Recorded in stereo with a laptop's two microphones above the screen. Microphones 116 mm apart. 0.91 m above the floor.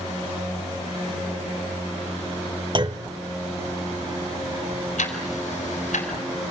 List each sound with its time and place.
2.8 s a clunk: 40° right (ahead or behind), 0.9 m
5.0 s ticking: 80° left, 4 m